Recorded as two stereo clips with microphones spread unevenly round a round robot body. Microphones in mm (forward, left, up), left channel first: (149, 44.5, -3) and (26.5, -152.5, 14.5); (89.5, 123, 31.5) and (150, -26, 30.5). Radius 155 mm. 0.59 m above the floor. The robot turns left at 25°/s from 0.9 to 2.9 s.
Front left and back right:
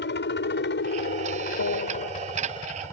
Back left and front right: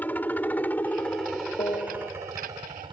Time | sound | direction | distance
0.0 | a helicopter | 35° left | ?
1.6 | a piano | 50° left | ?